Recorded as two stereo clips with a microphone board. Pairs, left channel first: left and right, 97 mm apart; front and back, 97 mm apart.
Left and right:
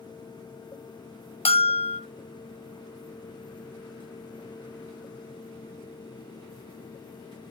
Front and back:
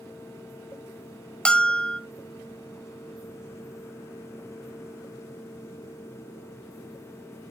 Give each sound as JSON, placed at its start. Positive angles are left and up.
{"t": 1.4, "sound": "a bell", "azimuth_deg": 80, "distance_m": 0.9}